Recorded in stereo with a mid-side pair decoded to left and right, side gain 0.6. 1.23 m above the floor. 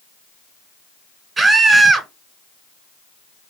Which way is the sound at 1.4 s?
30° right.